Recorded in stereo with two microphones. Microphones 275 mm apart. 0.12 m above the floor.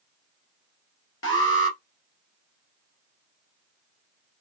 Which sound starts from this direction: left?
An alarm, at 1.2 s.